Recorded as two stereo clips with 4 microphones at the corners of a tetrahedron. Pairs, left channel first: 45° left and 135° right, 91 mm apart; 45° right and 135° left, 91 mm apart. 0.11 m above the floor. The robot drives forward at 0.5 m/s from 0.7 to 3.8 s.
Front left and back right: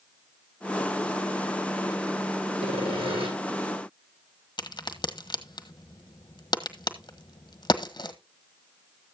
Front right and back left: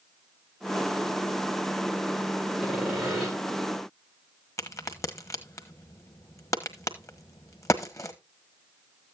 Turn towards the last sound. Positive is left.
turn(degrees=10)